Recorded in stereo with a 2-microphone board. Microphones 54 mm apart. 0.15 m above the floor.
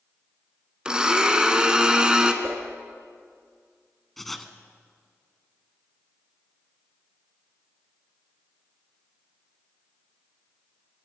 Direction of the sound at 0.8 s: 15° right (ahead or behind).